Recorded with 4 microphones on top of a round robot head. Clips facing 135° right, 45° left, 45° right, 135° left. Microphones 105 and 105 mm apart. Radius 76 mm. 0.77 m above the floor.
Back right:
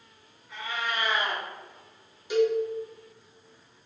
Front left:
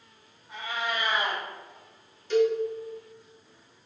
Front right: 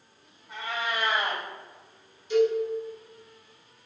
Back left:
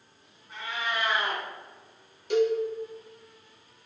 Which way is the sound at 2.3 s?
145° left.